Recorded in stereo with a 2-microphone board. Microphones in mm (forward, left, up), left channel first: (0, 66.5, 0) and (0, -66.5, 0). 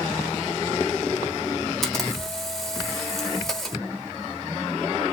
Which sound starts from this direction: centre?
A camera shutter, at 1.8 s.